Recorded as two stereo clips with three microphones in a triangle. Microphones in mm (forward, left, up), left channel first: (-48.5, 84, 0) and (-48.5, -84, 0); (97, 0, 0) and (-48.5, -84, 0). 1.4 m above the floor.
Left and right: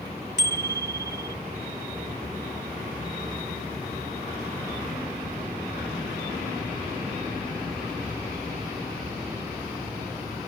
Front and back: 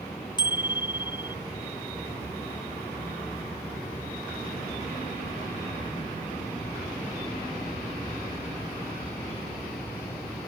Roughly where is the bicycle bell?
Left.